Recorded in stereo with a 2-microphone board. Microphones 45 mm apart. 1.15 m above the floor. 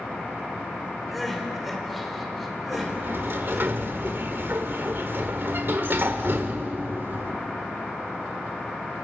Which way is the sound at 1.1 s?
Centre (ahead or behind).